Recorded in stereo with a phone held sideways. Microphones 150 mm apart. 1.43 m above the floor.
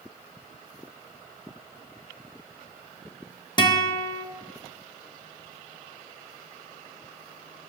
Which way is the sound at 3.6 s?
30° left (ahead or behind).